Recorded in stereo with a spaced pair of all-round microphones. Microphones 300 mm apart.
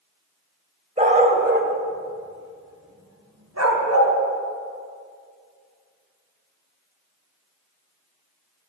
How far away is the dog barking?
About 1.9 m.